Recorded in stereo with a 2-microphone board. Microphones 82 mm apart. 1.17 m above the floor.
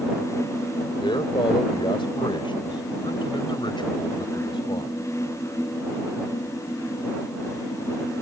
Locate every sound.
1.0 s a man speaking: 85° left; by 5.0 s 70° left (ahead or behind)